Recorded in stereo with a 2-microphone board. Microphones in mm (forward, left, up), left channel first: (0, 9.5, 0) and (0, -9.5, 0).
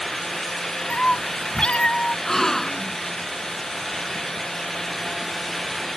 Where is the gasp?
25° left (ahead or behind).